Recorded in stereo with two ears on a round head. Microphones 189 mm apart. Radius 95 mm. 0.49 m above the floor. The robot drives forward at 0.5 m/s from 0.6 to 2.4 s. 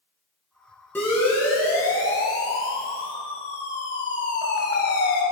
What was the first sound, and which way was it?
A siren, 10° left (ahead or behind).